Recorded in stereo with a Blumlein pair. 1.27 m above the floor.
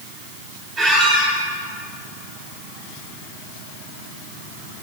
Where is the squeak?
25° right, 3.5 m.